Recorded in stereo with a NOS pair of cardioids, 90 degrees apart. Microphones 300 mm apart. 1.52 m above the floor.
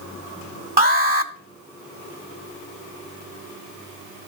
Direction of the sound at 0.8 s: 30° right.